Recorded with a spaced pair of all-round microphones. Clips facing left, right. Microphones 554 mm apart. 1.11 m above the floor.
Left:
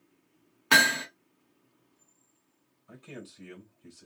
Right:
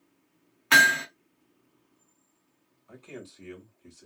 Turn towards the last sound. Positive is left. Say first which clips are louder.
# right 1 dB
turn(degrees=40)  # may be behind; listen again after turning